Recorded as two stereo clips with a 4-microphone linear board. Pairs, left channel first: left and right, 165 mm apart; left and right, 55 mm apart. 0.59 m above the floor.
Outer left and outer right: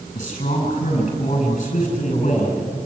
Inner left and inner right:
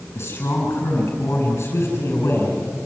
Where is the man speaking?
40° left (ahead or behind), 6 m.